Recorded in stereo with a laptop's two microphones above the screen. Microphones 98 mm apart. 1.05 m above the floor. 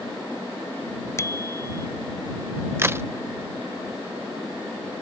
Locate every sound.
1.2 s a bicycle bell: 30° left (ahead or behind)
2.8 s a crack: 25° right (ahead or behind)